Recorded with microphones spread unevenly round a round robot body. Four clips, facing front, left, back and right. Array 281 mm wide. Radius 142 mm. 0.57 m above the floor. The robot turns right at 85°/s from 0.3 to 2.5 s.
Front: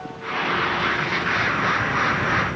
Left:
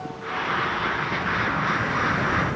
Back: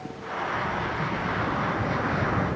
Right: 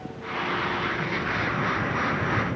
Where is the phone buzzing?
No phone buzzing in this recording.